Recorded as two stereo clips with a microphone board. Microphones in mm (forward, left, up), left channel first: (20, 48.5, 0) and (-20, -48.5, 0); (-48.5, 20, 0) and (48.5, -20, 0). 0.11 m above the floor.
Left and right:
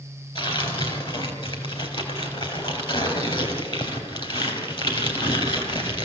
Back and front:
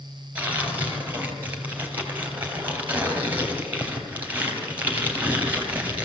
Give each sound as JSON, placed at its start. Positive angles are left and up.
{"t": 0.3, "sound": "tearing paper", "azimuth_deg": 50, "distance_m": 3.5}